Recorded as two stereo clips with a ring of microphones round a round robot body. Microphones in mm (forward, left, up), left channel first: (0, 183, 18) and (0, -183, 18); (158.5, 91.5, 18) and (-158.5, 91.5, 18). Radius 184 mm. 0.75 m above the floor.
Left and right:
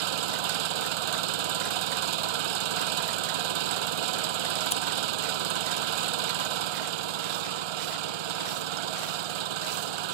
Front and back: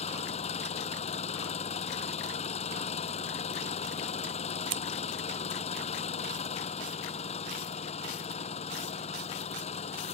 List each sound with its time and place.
0.0 s an engine running: 75° right
4.7 s scissors: 165° left